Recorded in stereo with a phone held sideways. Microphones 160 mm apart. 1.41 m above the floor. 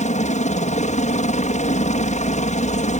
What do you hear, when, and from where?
0.0 s a helicopter: 45° left (ahead or behind)